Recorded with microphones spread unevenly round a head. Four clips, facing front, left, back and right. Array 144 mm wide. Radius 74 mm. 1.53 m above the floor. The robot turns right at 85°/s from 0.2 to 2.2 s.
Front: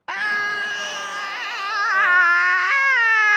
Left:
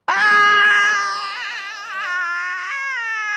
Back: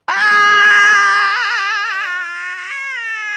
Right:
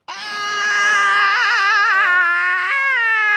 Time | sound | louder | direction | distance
0.1 | a scream | left 11 dB, back 13 dB | 130° left | ?